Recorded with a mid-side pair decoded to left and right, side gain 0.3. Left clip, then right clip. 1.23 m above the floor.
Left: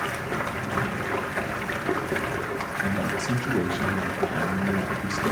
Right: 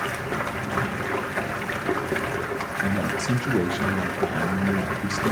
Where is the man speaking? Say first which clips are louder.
Right 2 dB; 35° right, 0.9 m.